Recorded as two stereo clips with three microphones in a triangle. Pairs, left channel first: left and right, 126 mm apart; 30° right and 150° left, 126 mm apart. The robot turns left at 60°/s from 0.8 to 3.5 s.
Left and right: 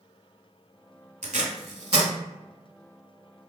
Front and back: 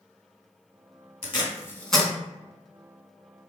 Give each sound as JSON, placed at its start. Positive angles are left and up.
{"t": 1.2, "sound": "tape being pulled", "azimuth_deg": -75, "distance_m": 0.7}